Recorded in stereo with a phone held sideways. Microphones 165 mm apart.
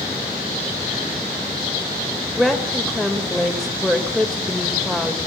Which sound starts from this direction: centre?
A woman speaking, at 2.4 s.